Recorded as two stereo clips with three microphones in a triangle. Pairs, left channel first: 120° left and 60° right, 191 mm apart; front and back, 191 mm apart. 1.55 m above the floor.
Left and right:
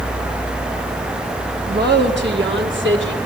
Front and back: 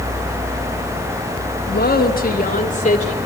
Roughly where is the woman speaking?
Ahead right.